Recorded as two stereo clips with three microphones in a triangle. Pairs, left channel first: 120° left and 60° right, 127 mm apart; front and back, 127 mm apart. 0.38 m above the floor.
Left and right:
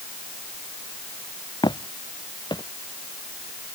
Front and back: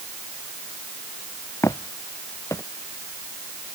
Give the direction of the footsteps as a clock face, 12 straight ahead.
10 o'clock.